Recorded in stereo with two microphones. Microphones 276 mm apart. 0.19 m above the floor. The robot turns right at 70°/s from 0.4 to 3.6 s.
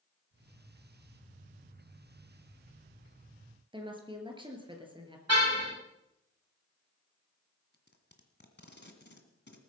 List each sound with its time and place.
3.7 s a woman speaking: 15° right (ahead or behind), 3.5 m
5.3 s a car horn: 65° right (ahead or behind), 9 m
7.7 s tape being pulled: 40° left (ahead or behind), 1.9 m